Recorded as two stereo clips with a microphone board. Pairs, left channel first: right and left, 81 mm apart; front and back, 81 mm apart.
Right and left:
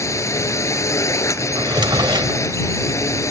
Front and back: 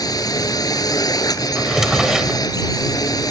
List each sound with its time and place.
0.0 s a drone: 40° right
1.6 s a drawer: 95° left